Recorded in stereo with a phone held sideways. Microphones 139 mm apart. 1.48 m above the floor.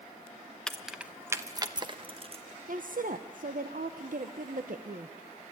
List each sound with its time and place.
0.7 s keys jangling: 5° left (ahead or behind), 0.8 m; by 2.4 s 45° right (ahead or behind), 1.2 m
2.7 s a woman speaking: 70° right (ahead or behind), 1.0 m